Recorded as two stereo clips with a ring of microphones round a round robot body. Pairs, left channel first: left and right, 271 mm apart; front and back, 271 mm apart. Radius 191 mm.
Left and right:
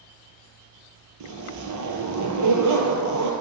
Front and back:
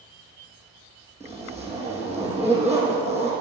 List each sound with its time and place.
1.2 s a zipper: 80° right, 2.5 m